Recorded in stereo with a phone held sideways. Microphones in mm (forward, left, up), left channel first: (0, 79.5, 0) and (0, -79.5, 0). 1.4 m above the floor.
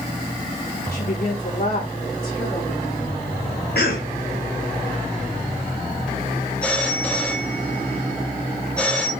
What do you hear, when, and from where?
0.9 s a woman speaking: 80° left, 5 m; by 3.2 s 65° left (ahead or behind), 5.5 m
3.8 s a cough: 85° left, 1.5 m
6.6 s a phone ringing: 10° left (ahead or behind), 1.7 m